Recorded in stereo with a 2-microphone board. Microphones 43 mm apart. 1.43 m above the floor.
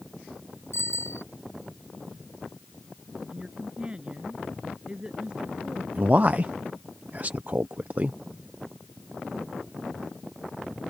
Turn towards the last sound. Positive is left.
turn(degrees=-35)  # may be behind; listen again after turning